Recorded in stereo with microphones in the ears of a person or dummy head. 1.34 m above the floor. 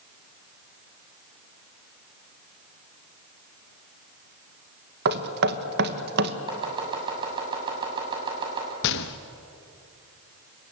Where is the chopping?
25° right (ahead or behind), 6.5 m.